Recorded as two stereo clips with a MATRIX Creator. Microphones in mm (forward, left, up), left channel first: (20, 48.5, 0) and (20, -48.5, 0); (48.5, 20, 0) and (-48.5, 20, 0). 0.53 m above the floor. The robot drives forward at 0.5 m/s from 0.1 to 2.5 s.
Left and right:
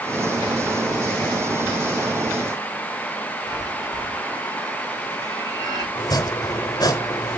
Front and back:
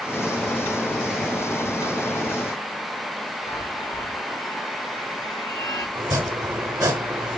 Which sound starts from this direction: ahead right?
A chime, at 3.5 s.